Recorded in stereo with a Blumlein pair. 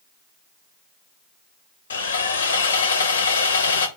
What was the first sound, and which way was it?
Sawing, 70° left.